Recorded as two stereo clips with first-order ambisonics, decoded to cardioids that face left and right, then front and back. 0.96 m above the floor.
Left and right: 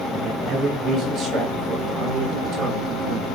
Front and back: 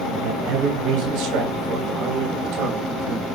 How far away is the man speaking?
About 4.5 m.